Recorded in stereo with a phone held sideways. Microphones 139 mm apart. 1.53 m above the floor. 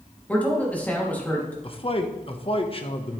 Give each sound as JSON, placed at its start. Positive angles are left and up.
{"t": 0.3, "sound": "a man speaking", "side_deg": 10, "distance_m": 3.0}
{"t": 1.6, "sound": "a man speaking", "side_deg": 40, "distance_m": 1.2}